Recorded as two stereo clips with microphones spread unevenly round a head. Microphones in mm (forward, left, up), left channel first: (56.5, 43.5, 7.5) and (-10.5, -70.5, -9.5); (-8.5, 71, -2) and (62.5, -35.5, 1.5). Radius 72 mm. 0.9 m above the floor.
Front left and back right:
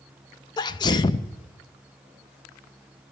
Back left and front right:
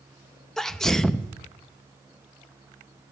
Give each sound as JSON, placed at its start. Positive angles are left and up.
{"t": 0.6, "sound": "a sneeze", "azimuth_deg": 45, "distance_m": 0.5}